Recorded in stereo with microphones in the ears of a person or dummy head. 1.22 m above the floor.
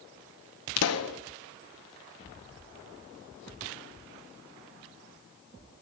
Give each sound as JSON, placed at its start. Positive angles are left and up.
{"t": 0.8, "sound": "a pop", "side_deg": 75, "distance_m": 0.7}